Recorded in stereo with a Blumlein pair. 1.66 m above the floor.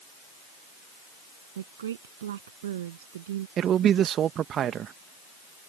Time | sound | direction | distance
1.6 | a woman speaking | 60° right | ?
3.6 | a man speaking | 30° right | ?